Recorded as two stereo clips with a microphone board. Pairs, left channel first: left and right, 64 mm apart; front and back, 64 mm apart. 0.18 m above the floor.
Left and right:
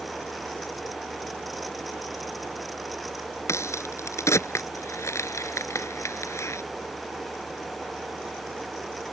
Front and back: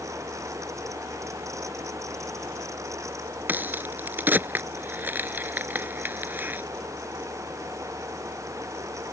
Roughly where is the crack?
Behind left.